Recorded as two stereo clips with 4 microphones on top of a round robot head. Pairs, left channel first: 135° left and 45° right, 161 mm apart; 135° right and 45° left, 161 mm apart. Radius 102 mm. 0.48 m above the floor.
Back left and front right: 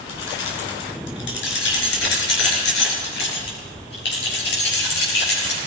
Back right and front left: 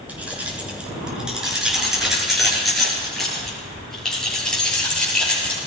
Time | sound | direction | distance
0.1 | keys jangling | 130° left | 5.5 m